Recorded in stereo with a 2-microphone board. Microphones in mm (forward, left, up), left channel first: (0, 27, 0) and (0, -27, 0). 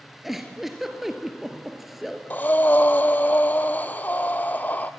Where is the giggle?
5° right (ahead or behind), 1.7 m.